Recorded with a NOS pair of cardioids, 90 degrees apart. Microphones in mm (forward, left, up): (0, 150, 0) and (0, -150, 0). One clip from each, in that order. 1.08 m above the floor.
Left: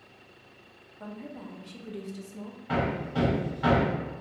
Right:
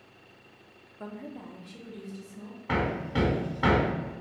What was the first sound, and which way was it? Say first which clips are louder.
A woman speaking: right 1 dB; 25° right.